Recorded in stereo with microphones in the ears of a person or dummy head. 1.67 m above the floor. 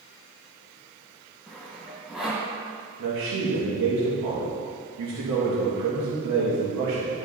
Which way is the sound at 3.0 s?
80° right.